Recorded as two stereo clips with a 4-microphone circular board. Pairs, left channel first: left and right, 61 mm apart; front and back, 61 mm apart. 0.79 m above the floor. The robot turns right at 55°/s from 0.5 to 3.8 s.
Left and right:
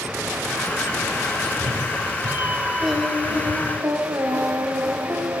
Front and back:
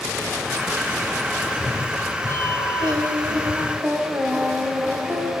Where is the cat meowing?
95° right, 0.8 m; by 3.8 s 40° left, 0.8 m.